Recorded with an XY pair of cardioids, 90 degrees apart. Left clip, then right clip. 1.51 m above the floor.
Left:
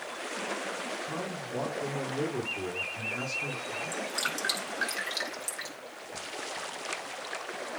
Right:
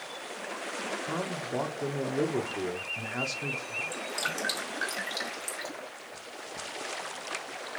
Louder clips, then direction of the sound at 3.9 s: Even; 15° left.